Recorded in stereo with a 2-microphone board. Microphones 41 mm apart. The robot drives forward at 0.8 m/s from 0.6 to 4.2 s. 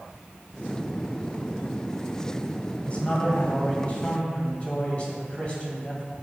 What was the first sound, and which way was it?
A man speaking, 30° left (ahead or behind).